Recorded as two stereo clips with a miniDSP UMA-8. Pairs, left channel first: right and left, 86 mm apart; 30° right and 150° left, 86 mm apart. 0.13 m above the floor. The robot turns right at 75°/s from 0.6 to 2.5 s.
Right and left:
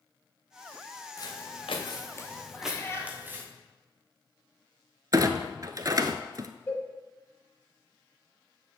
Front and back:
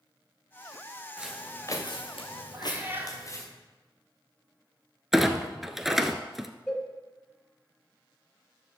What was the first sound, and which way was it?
Footsteps, 135° right.